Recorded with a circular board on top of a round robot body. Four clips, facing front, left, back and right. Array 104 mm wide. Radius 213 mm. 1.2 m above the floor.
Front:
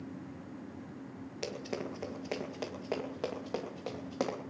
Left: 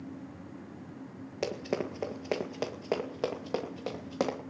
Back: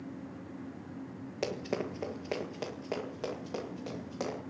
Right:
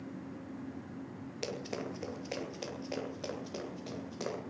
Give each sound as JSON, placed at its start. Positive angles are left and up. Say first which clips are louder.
{"t": 1.4, "sound": "running footsteps", "louder": "left 7 dB, back 4 dB", "azimuth_deg": 130, "distance_m": 1.6}